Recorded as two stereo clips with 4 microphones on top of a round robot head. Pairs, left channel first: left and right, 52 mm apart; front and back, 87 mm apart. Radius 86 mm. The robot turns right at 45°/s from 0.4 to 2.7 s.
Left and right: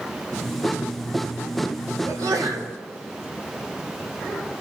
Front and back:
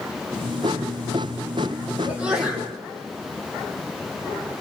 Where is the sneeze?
110° right, 4 m; by 2.7 s 80° right, 4 m.